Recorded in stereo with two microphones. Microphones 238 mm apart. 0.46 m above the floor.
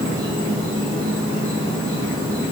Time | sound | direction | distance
0.0 | an insect | 70° right (ahead or behind) | 8 m